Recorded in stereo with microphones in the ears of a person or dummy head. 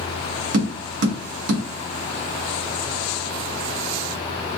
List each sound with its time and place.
0.5 s tapping: 75° right (ahead or behind), 1.7 m